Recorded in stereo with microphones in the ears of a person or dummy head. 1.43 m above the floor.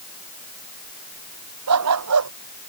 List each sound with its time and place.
1.7 s a dog barking: 80° right